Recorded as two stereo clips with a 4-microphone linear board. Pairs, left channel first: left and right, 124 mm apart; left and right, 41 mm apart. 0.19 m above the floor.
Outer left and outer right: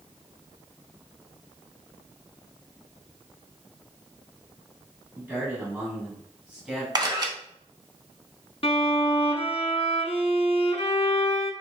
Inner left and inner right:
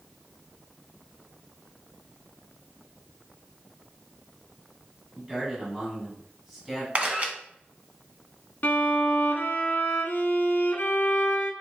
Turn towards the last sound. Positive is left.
turn(degrees=50)  # may be behind; listen again after turning